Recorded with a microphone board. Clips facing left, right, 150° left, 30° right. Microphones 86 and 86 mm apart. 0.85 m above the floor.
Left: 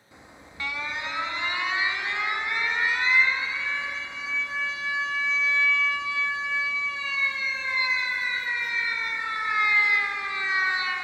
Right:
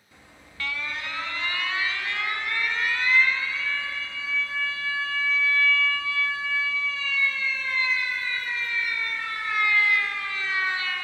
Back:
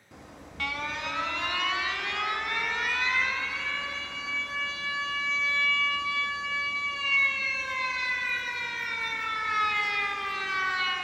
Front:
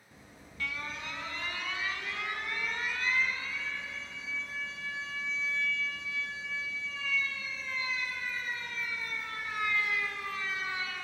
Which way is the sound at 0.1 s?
160° left.